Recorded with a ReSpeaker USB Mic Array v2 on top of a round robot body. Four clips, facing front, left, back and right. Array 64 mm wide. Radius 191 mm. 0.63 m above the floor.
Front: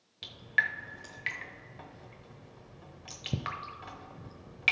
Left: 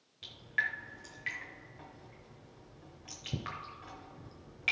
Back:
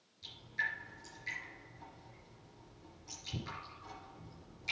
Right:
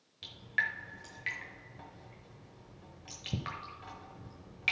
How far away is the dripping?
About 1.0 m.